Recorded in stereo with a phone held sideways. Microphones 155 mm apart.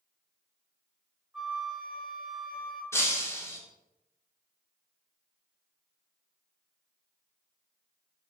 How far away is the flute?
About 3.5 m.